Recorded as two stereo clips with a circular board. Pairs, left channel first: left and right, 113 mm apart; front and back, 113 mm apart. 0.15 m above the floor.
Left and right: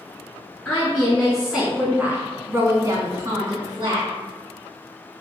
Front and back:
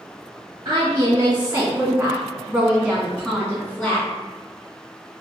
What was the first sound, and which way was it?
A woman speaking, 155° left.